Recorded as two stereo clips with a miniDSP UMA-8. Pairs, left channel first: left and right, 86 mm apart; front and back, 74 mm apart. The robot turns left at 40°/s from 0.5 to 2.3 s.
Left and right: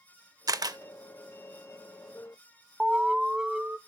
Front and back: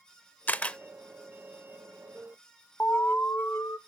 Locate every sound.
0.5 s a camera shutter: 65° right, 0.6 m; by 0.8 s 75° right, 0.6 m
2.8 s an alarm: 20° right, 0.6 m